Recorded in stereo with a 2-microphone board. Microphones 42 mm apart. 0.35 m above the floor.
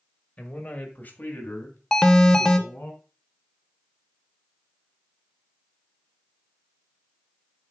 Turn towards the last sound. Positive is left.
turn(degrees=15)  # may be behind; listen again after turning